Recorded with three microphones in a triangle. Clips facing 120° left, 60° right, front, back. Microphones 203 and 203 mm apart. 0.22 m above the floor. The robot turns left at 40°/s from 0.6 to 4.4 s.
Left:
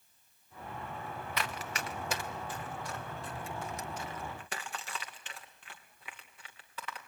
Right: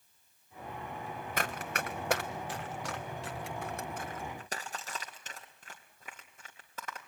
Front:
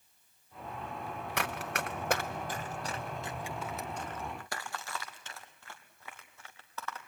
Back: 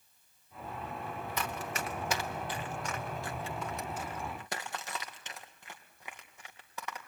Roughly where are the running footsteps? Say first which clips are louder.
Right 3 dB, front 2 dB; ahead.